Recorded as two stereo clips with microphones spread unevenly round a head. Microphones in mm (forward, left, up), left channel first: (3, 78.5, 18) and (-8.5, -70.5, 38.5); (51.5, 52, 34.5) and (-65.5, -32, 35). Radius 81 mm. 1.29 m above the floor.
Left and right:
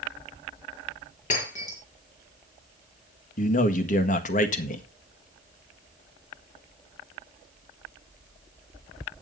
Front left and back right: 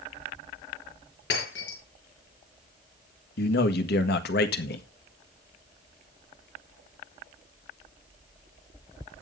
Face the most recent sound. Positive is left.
turn(degrees=45)